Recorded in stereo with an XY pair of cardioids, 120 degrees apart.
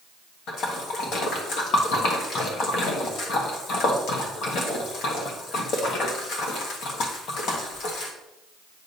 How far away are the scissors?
I don't hear scissors.